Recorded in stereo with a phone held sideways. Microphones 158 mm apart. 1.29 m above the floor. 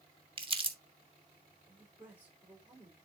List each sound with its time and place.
0.4 s crumpling: 35° right (ahead or behind), 1.5 m
1.7 s a man speaking: 10° right (ahead or behind), 4 m